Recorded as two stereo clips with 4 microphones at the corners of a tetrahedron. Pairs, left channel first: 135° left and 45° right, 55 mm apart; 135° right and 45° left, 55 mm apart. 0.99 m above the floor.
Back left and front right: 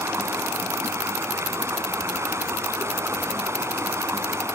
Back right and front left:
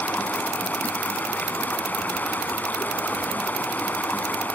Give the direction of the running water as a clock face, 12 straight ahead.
3 o'clock.